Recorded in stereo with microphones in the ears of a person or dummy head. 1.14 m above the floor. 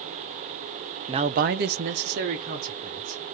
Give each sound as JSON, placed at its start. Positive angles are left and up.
{"t": 1.1, "sound": "a man speaking", "side_deg": -30, "distance_m": 0.5}